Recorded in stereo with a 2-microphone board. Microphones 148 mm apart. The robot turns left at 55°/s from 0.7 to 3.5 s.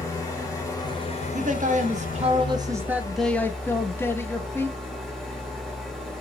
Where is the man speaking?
80° right, 0.7 m; by 4.8 s 160° left, 0.7 m.